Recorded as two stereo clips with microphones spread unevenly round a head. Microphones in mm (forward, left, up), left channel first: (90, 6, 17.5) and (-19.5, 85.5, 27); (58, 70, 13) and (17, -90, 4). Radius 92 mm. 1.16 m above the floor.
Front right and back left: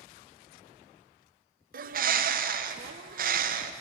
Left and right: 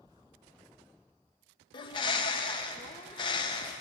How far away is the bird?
About 0.6 m.